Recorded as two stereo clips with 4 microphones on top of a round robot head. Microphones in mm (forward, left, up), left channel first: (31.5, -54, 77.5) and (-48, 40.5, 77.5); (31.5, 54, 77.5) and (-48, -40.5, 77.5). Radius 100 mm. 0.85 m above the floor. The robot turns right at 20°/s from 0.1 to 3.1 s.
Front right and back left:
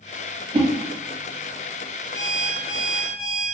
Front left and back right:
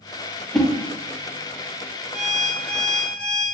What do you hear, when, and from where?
0.5 s a whoosh: 135° left, 0.6 m; by 0.7 s 140° left, 0.6 m
2.1 s an alarm clock: 80° right, 1.8 m; by 3.5 s 60° right, 1.8 m